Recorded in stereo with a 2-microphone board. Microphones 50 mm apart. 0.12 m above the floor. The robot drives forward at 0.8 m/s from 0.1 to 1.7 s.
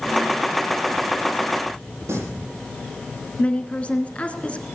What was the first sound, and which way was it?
Singing, 70° right (ahead or behind).